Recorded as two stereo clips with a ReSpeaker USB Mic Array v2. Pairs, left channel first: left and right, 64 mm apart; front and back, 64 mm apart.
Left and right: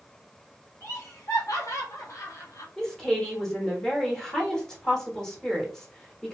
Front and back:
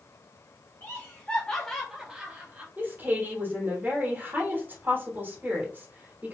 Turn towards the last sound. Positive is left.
turn(degrees=160)